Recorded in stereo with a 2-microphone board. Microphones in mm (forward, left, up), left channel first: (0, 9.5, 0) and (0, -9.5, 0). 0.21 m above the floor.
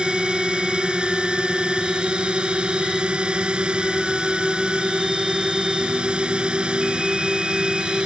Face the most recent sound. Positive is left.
turn(degrees=-60)  # may be behind; listen again after turning